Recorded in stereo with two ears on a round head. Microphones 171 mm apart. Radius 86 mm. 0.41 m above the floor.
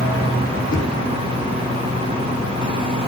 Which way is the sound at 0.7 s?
50° left (ahead or behind).